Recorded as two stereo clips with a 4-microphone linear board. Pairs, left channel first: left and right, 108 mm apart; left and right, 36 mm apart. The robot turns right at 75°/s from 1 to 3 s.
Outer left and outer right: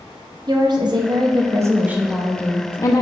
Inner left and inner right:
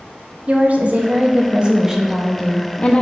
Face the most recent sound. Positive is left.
turn(degrees=60)